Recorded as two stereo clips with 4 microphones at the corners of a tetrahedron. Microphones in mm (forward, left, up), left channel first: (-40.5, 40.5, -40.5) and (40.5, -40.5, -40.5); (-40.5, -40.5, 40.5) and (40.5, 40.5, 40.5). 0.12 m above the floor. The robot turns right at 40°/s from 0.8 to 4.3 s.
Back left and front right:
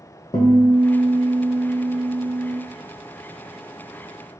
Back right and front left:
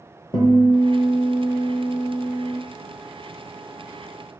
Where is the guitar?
175° left, 0.7 m; by 2.6 s 110° right, 0.7 m.